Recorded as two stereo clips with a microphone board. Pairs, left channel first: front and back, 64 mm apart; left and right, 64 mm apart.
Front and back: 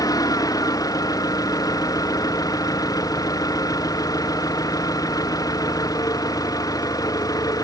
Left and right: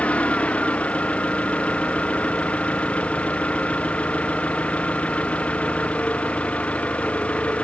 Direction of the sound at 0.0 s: 20° left.